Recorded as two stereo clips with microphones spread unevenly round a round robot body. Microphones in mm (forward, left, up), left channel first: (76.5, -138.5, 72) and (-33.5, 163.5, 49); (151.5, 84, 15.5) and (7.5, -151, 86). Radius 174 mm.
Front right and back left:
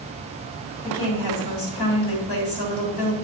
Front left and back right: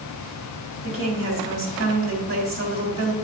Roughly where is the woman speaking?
Right.